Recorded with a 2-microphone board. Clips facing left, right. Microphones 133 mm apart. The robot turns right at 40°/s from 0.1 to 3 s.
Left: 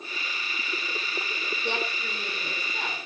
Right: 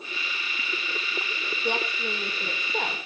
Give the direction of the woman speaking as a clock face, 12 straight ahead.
6 o'clock.